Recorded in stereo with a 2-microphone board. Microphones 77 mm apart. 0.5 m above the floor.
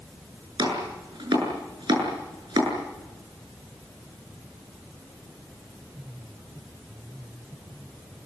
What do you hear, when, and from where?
0.6 s chopping: 80° right, 8 m